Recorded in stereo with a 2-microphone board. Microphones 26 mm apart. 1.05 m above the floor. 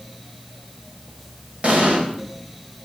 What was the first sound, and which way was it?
An explosion, 55° right (ahead or behind).